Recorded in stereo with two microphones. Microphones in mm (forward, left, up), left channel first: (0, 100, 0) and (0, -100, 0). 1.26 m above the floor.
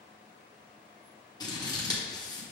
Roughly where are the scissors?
Centre.